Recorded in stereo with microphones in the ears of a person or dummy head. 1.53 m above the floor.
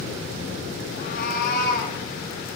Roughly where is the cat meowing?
Left.